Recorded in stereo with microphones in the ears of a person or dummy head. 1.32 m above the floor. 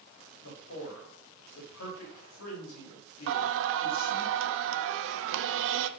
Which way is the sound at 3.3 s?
70° right (ahead or behind).